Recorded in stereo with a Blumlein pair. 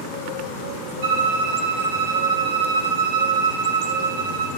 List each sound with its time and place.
1.0 s a violin: 60° right, 1.0 m